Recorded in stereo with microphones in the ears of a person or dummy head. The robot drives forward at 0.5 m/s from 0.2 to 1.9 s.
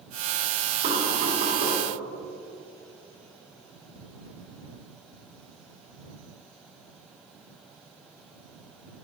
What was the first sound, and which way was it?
Knocking, 45° right (ahead or behind).